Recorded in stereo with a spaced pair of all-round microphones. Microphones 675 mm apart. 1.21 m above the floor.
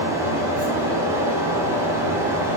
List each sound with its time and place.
0.0 s a fan: 5° right (ahead or behind), 0.7 m